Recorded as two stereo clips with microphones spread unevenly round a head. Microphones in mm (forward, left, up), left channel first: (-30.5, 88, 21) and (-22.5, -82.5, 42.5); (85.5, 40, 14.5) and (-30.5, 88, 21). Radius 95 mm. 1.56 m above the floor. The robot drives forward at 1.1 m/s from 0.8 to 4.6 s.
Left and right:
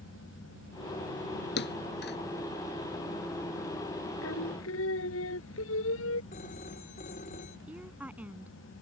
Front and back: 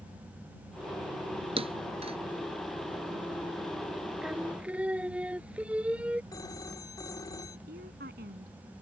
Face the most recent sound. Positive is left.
turn(degrees=-170)